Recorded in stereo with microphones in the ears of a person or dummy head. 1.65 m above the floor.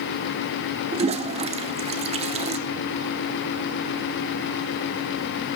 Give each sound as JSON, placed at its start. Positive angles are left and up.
{"t": 0.9, "sound": "a toilet flushing", "side_deg": -30, "distance_m": 0.9}